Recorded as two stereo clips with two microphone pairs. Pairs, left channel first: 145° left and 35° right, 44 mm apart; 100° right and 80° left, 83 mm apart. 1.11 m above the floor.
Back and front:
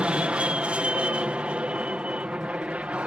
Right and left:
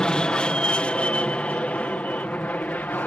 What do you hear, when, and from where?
0.0 s an aircraft: 35° right; by 3.1 s 50° right